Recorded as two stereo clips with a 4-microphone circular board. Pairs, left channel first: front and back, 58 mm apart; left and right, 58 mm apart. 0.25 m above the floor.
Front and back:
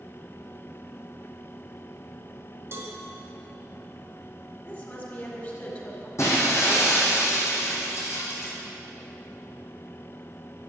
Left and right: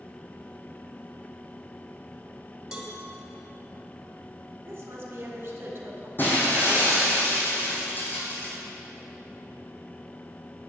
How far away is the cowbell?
About 1.5 m.